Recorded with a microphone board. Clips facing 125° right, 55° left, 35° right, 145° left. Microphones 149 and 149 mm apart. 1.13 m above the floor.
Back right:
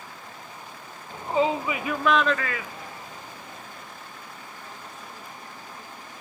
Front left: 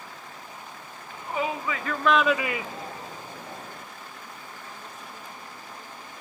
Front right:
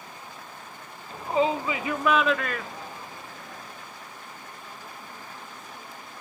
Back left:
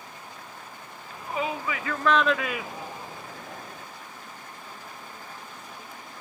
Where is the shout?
80° right, 1.0 m; by 3.9 s 90° left, 1.3 m.